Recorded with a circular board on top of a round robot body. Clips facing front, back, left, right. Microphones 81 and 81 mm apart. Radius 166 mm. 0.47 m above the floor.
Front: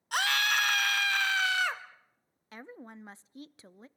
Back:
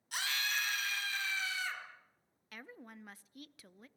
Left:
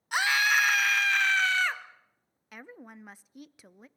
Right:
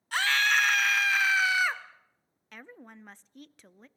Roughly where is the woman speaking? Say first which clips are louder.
Front 5 dB, left 1 dB; ahead.